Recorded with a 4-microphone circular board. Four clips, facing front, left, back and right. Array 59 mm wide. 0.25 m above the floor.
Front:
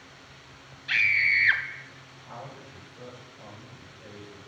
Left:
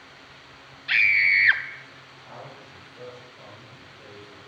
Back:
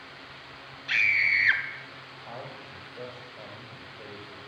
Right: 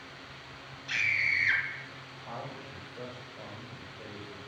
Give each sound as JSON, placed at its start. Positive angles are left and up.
{"t": 0.9, "sound": "a scream", "azimuth_deg": 85, "distance_m": 1.2}
{"t": 2.2, "sound": "a man speaking", "azimuth_deg": -165, "distance_m": 6.0}